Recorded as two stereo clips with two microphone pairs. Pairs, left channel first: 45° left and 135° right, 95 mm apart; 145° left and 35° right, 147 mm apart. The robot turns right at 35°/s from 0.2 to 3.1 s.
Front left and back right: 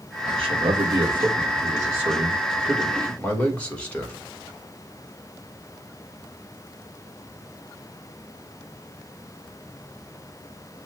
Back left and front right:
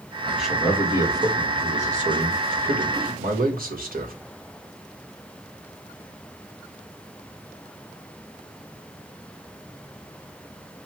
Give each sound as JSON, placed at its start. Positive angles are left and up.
{"t": 0.3, "sound": "a man speaking", "azimuth_deg": -130, "distance_m": 2.0}